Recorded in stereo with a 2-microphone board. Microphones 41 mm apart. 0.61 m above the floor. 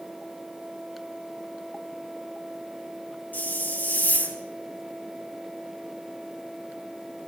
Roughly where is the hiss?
Left.